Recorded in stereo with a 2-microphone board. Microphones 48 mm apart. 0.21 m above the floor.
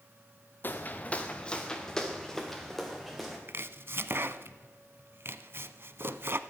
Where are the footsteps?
45° left (ahead or behind), 1.1 m; by 3.4 s centre (ahead or behind), 3 m.